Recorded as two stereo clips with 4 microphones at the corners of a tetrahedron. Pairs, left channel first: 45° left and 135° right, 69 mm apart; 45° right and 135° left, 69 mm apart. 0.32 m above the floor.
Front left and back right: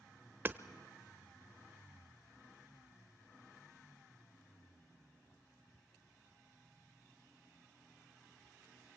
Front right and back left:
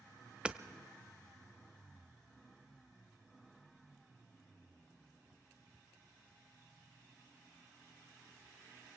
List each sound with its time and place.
0.5 s hammering: 160° right, 0.9 m